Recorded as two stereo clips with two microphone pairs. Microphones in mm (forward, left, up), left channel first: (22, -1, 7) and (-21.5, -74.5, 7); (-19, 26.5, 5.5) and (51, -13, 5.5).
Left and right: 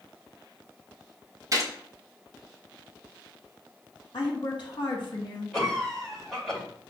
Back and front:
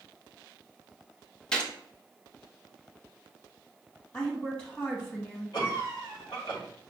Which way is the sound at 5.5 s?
150° left.